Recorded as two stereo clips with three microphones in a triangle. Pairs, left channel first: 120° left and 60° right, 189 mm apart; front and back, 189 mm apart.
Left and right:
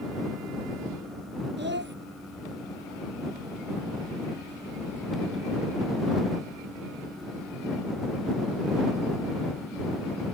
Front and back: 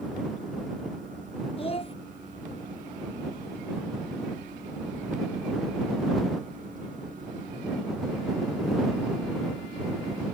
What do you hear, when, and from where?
1.6 s a child speaking: 55° right